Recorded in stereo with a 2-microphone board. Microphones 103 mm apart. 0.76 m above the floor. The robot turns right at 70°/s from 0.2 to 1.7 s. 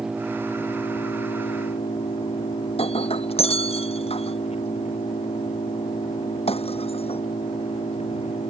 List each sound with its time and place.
0.0 s an engine running: 5° right; by 8.5 s 100° left
2.7 s breaking glass: 75° left (ahead or behind)